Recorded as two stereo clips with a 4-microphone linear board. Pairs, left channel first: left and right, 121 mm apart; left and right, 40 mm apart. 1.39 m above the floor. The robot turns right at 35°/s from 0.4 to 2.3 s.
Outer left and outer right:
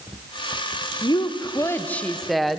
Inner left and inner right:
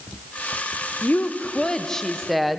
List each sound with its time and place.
1.0 s a woman speaking: 135° left, 1.1 m; by 2.6 s straight behind, 1.1 m